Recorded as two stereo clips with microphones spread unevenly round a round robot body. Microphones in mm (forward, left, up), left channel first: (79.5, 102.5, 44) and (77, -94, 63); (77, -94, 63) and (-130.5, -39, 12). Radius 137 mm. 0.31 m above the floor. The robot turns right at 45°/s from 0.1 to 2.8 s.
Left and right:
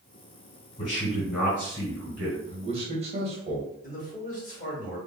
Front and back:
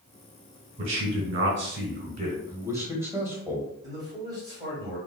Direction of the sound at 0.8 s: 135° left.